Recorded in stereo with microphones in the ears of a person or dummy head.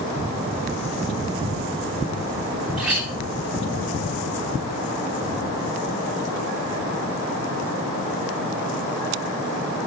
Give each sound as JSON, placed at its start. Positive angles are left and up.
{"t": 2.8, "sound": "a clink", "side_deg": 0, "distance_m": 2.0}